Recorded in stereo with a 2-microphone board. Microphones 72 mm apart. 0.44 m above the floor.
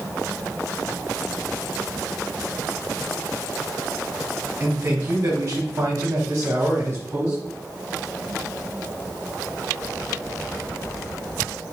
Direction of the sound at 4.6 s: 25° right (ahead or behind).